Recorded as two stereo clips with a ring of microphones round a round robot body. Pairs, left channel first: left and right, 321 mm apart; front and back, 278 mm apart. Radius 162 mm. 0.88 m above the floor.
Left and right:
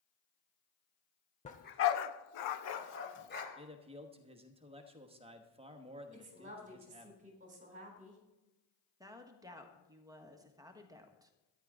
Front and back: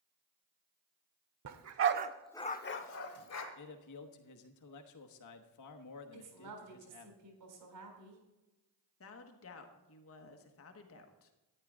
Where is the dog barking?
160° left, 1.2 m; by 3.5 s 30° left, 1.8 m.